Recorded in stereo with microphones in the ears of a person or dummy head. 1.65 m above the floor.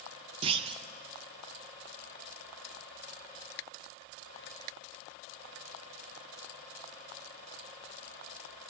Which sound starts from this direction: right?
A clunk, at 0.4 s.